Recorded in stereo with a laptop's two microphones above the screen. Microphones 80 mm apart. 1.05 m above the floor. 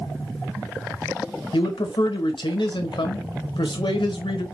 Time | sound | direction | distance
1.5 | a man speaking | 75° left (ahead or behind) | 0.8 m